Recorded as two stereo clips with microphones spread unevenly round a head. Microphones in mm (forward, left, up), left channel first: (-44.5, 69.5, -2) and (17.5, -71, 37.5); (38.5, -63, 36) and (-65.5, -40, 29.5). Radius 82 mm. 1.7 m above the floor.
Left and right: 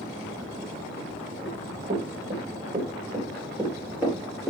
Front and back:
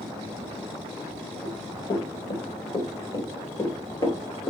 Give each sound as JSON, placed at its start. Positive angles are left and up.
{"t": 1.4, "sound": "running footsteps", "azimuth_deg": -50, "distance_m": 3.5}